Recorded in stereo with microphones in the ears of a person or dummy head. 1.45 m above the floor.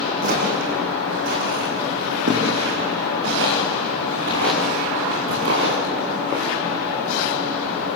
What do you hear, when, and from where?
0.2 s footsteps: 50° right (ahead or behind), 5.5 m; by 5.8 s 70° right (ahead or behind), 8.5 m